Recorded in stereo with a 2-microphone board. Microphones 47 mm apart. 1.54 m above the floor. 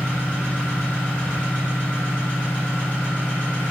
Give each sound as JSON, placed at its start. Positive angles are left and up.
{"t": 0.0, "sound": "an engine running", "side_deg": 20, "distance_m": 2.0}